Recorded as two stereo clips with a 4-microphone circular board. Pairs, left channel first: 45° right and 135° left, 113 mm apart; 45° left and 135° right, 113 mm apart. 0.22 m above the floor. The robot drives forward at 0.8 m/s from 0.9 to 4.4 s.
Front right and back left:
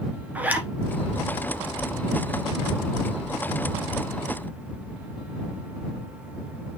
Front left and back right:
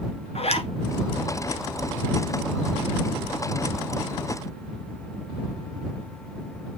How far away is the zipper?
About 1.6 m.